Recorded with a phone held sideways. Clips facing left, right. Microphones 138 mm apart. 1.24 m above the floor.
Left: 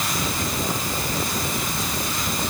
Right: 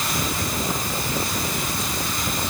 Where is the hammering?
No hammering in this recording.